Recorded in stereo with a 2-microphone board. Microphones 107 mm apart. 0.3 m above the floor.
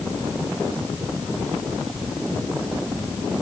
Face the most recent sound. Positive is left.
No sound to turn to.